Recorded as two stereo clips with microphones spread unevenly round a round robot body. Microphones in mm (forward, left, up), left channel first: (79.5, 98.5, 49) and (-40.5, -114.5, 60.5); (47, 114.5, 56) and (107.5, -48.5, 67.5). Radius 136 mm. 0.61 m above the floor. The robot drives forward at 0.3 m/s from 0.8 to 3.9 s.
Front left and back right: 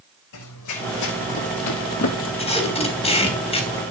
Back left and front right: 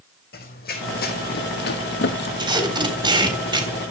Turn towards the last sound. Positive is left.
turn(degrees=-5)